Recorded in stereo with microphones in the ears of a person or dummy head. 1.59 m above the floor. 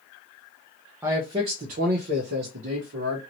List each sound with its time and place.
1.0 s a man speaking: 10° right (ahead or behind), 0.7 m; by 3.2 s 70° right (ahead or behind), 1.5 m